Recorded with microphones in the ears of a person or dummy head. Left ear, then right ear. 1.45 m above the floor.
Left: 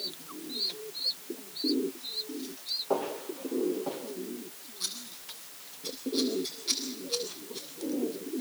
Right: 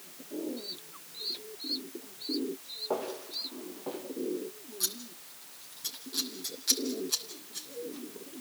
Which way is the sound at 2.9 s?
10° right (ahead or behind).